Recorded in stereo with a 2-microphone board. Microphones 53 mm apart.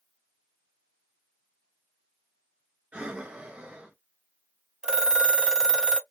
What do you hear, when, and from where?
2.9 s breathing: 20° right (ahead or behind), 1.0 m
4.8 s a phone ringing: 15° right (ahead or behind), 0.7 m